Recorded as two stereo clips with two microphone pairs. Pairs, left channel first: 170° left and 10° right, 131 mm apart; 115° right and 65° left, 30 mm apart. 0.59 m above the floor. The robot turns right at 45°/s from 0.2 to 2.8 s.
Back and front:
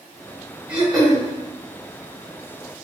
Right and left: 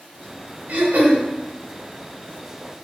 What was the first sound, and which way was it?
Throat clearing, 65° left.